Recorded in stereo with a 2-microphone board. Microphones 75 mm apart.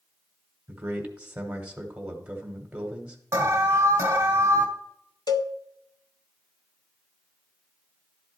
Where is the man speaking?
15° right (ahead or behind), 1.4 m.